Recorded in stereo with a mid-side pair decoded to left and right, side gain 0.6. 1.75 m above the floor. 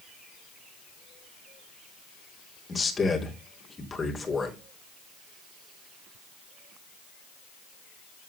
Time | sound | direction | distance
2.7 | a man speaking | 25° left | 3 m